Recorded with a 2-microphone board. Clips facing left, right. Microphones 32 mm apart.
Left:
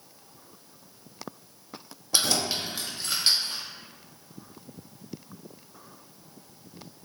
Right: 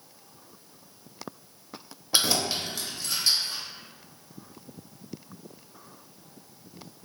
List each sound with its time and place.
2.1 s keys jangling: 20° right (ahead or behind), 0.6 m; by 3.6 s 60° left (ahead or behind), 1.2 m